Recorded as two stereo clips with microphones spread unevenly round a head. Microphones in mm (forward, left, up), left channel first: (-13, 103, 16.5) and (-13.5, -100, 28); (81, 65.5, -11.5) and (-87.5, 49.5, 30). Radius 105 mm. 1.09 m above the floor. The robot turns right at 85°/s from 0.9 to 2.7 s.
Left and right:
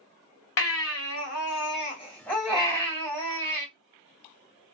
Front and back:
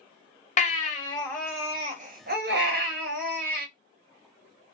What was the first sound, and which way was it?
A baby crying, 55° left.